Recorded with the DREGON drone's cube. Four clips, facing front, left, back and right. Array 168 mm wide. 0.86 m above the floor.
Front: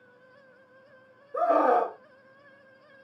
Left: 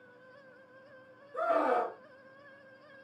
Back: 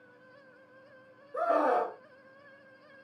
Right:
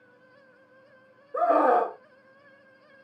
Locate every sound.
1.3 s a scream: 70° right, 0.6 m